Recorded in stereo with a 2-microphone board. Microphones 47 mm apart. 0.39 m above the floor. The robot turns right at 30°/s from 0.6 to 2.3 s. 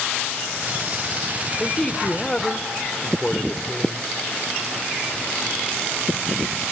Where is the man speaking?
20° left (ahead or behind), 0.8 m; by 4.1 s 15° left (ahead or behind), 0.8 m.